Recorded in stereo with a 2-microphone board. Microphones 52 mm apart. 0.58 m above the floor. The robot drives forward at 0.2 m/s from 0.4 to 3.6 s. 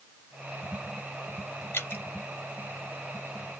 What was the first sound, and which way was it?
Dripping, 45° left (ahead or behind).